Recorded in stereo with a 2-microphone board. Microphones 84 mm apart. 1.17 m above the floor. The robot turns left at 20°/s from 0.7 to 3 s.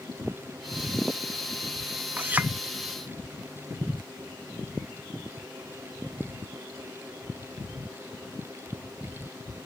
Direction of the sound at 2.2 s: 25° right (ahead or behind).